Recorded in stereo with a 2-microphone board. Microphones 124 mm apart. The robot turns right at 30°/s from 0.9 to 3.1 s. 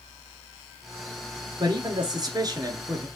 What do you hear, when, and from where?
1.6 s a man speaking: 90° right, 1.3 m; by 3.1 s 45° right, 1.3 m